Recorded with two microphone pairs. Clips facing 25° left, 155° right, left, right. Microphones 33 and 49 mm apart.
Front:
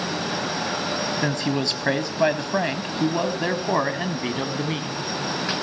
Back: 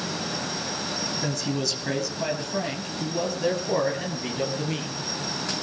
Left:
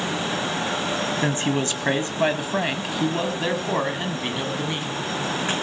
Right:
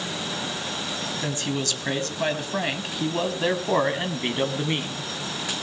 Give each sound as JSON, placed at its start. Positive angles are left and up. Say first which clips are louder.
{"t": 1.2, "sound": "a man speaking", "louder": "front 3 dB, left 3 dB", "azimuth_deg": 45, "distance_m": 2.0}